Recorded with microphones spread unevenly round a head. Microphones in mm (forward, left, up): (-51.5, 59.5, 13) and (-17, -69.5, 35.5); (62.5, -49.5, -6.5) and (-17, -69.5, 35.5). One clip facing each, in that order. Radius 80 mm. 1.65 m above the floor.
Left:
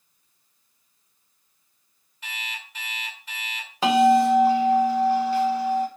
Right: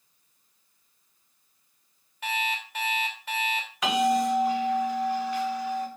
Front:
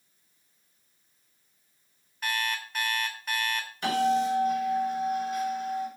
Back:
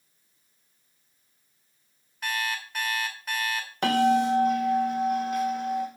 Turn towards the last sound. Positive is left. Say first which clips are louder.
# left 7 dB, back 3 dB
turn(degrees=170)